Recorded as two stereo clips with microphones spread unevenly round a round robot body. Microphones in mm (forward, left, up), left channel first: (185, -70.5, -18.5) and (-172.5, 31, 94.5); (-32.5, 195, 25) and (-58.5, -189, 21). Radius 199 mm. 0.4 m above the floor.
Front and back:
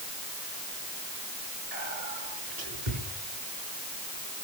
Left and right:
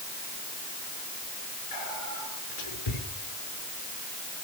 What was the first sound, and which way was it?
Whispering, 125° left.